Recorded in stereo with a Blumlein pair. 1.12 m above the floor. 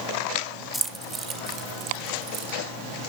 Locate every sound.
0.7 s keys jangling: 5° right, 0.8 m; by 2.6 s 40° right, 2.5 m